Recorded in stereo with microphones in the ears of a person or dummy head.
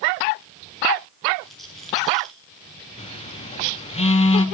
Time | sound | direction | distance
1.4 | a rattle | 5° right (ahead or behind) | 1.9 m
3.0 | a phone buzzing | 35° left (ahead or behind) | 0.7 m